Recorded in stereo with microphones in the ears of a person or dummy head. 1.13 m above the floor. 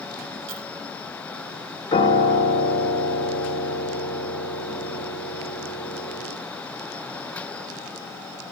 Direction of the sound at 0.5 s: 75° right (ahead or behind).